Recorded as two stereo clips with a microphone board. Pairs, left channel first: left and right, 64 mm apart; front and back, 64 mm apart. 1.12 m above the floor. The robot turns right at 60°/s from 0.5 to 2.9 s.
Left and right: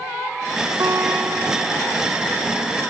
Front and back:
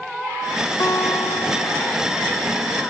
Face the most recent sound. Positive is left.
turn(degrees=75)